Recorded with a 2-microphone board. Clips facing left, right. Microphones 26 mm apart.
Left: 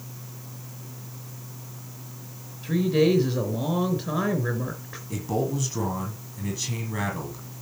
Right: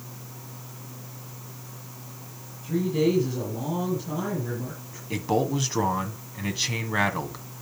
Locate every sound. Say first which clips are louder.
2.6 s a woman speaking: left 3 dB; 55° left (ahead or behind), 4 m
5.1 s a man speaking: right 3 dB; 40° right (ahead or behind), 2 m